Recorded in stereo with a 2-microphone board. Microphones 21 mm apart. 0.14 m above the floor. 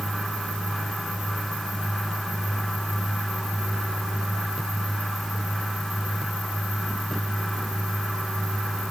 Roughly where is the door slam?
No door slam in this recording.